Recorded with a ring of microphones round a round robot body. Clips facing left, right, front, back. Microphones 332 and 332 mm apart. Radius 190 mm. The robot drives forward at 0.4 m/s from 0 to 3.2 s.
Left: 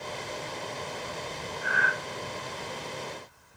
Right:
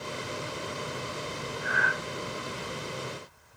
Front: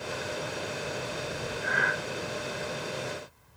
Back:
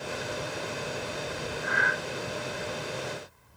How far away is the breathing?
About 0.6 m.